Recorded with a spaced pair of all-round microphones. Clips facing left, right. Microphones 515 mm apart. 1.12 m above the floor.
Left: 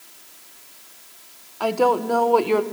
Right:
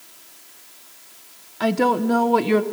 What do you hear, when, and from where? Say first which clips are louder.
1.6 s a woman speaking: right 1 dB; 40° right (ahead or behind), 0.7 m